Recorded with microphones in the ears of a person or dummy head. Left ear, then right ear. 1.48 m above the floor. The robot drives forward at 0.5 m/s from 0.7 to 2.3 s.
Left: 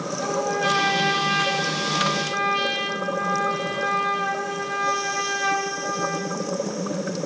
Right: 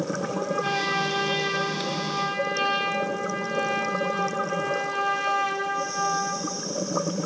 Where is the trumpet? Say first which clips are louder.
Left 7 dB; 70° left (ahead or behind), 4 m; by 6.5 s 75° left (ahead or behind), 4 m.